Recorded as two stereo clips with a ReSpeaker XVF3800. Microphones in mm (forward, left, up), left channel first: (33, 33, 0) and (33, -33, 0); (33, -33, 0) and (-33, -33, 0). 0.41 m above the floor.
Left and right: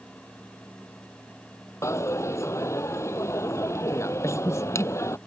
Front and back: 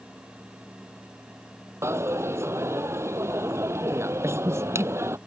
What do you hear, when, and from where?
1.8 s a dropped coin: 135° left